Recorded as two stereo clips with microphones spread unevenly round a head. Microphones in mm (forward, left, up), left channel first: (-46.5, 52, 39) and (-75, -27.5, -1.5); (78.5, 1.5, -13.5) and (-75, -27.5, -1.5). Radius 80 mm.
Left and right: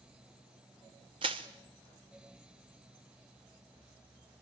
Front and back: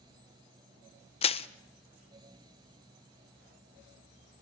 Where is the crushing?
45° right, 0.8 m.